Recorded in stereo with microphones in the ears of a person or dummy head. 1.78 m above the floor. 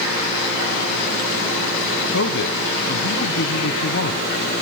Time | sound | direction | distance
2.1 | a man speaking | 65° left (ahead or behind) | 1.4 m